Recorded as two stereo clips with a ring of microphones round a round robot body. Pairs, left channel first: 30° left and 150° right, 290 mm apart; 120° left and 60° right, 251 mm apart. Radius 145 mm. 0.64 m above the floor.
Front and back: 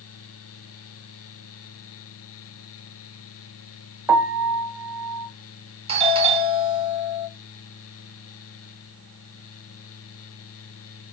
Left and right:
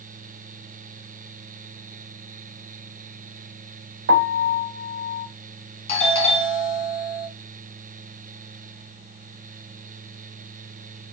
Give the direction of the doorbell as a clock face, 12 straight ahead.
7 o'clock.